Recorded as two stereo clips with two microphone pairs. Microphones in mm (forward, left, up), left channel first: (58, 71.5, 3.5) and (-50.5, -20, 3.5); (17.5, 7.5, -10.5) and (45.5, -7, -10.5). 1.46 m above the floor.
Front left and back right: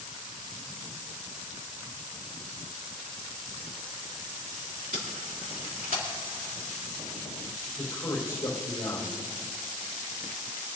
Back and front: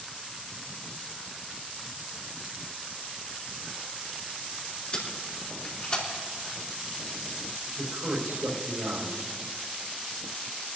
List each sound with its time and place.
4.9 s tape being pulled: 150° right, 2.5 m
7.8 s a man speaking: 25° right, 4 m